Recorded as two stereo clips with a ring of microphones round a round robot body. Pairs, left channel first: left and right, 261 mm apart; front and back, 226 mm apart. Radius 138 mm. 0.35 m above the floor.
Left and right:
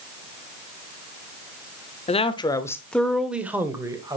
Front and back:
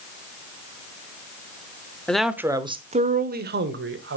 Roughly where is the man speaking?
Left.